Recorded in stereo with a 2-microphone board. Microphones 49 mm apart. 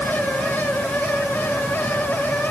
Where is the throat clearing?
I don't hear throat clearing.